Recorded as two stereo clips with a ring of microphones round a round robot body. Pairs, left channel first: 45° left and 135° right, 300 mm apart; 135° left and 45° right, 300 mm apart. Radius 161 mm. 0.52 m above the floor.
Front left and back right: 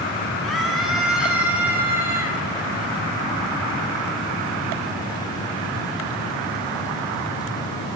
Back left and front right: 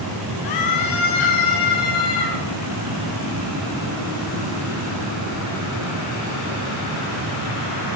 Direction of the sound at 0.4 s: 135° left.